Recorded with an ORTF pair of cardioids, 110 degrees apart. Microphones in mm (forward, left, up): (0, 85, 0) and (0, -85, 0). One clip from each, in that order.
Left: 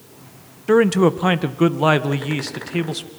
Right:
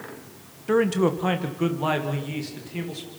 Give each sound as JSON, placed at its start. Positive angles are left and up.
{"t": 0.7, "sound": "a man speaking", "azimuth_deg": 30, "distance_m": 1.5}